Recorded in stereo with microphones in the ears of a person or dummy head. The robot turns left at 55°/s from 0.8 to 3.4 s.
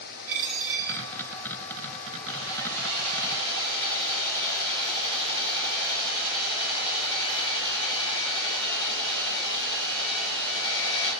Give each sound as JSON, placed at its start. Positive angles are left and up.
{"t": 0.3, "sound": "a dropped coin", "side_deg": -65, "distance_m": 2.5}
{"t": 2.3, "sound": "sawing", "azimuth_deg": 140, "distance_m": 4.5}